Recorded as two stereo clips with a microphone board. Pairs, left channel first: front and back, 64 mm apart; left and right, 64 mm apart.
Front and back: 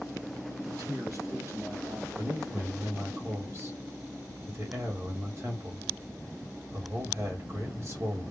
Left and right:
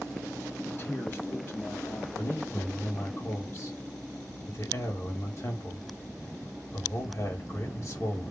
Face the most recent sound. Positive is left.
turn(degrees=130)